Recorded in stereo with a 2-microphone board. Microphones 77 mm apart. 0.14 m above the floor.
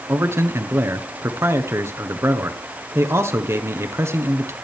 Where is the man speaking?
35° right (ahead or behind), 1.2 m.